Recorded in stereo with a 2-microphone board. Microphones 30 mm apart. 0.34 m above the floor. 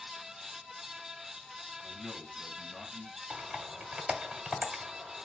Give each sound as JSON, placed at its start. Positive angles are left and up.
{"t": 1.8, "sound": "a man speaking", "side_deg": -20, "distance_m": 2.5}
{"t": 3.3, "sound": "typing on a keyboard", "side_deg": -25, "distance_m": 1.4}